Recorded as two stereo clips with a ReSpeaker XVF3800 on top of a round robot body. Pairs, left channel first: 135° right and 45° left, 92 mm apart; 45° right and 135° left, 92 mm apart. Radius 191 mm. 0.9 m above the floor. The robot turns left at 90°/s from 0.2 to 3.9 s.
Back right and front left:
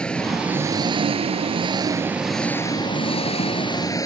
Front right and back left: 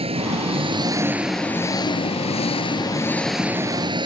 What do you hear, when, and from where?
0.0 s an engine running: 145° left; by 4.1 s 175° left